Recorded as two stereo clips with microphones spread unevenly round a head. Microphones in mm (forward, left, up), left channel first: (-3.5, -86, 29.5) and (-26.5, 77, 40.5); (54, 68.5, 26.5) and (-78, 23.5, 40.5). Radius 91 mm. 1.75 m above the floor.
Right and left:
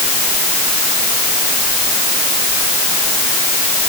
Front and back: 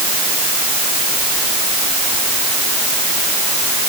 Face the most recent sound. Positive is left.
No sound to turn to.